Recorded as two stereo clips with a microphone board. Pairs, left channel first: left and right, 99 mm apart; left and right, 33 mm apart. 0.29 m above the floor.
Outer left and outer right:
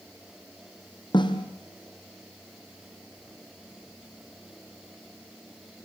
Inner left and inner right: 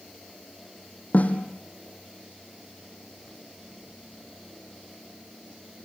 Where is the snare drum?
50° left (ahead or behind), 3 m.